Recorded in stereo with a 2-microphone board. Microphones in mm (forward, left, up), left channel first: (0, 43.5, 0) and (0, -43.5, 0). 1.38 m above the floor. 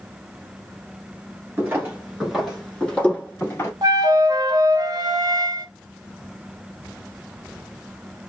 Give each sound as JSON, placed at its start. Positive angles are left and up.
{"t": 1.6, "sound": "footsteps", "side_deg": -20, "distance_m": 1.5}
{"t": 3.8, "sound": "a flute", "side_deg": -45, "distance_m": 0.5}